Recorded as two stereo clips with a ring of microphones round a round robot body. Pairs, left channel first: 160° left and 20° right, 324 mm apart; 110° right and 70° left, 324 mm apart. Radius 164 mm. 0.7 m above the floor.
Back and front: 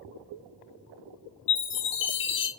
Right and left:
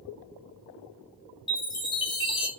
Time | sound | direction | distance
1.5 | a chime | straight behind | 1.1 m